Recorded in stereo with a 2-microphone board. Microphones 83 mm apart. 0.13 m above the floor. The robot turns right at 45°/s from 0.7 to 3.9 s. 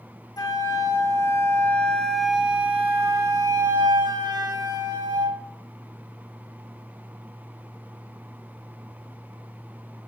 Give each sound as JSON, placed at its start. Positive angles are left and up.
{"t": 0.4, "sound": "a flute", "azimuth_deg": 115, "distance_m": 0.6}